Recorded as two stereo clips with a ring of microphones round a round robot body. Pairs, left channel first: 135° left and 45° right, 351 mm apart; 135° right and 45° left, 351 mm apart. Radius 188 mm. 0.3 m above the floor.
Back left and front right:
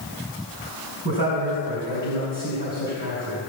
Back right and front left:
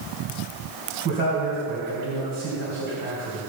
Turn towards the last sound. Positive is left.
turn(degrees=-15)